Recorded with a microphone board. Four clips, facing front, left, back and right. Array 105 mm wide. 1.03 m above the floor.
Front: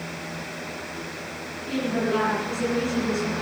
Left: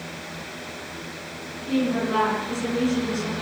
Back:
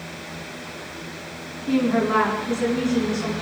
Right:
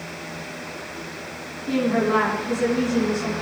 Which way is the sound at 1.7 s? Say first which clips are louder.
Right 3 dB, back 5 dB; 150° right.